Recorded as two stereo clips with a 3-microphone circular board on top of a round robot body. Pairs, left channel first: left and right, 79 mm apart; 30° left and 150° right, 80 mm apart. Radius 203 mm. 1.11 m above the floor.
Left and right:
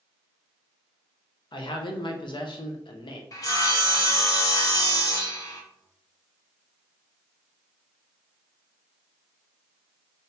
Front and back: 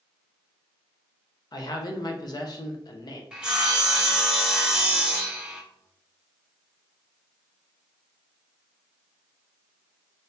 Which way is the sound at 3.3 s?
130° left.